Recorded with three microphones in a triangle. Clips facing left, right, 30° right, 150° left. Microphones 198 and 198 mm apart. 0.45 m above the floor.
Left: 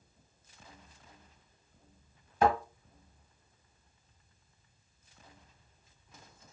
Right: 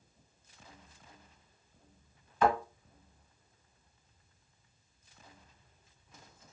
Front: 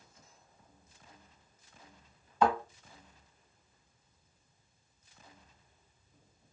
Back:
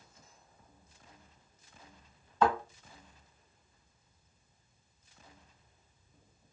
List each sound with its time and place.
2.4 s a thud: 50° left, 1.2 m